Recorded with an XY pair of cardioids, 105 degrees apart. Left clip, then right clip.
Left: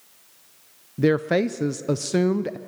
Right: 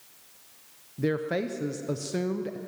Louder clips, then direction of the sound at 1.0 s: Left 8 dB; 50° left.